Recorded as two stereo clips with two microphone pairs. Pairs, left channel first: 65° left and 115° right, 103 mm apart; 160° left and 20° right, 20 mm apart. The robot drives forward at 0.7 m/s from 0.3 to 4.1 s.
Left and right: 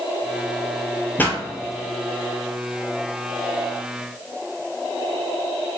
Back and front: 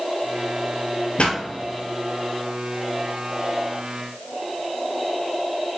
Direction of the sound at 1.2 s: 135° left.